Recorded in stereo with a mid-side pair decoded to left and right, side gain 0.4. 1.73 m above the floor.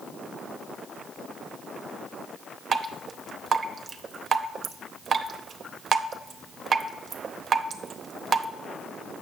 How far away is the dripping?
About 0.8 m.